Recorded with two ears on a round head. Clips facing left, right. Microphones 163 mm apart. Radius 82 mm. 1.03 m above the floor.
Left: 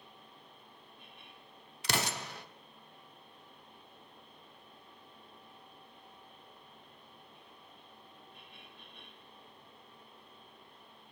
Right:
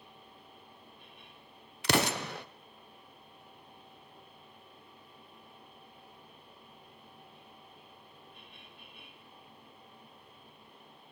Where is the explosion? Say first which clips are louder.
Right 7 dB; 50° right (ahead or behind), 0.6 m.